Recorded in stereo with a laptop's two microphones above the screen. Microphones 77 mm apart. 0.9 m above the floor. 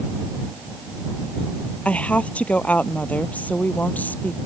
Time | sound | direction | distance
1.9 | a woman speaking | 15° left (ahead or behind) | ?